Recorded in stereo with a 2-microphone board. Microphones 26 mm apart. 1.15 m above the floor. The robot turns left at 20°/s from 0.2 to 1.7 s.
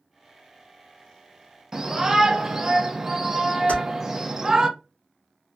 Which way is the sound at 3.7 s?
85° left.